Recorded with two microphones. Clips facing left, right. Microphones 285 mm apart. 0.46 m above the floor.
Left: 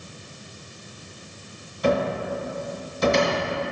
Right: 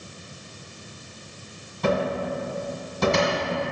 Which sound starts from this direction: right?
A cupboard door, at 1.8 s.